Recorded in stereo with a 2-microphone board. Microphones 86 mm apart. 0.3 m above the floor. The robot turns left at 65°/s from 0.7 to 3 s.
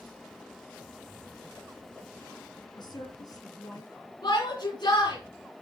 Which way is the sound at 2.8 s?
60° left (ahead or behind).